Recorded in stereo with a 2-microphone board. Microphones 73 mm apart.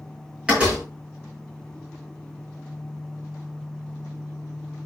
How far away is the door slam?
About 9 m.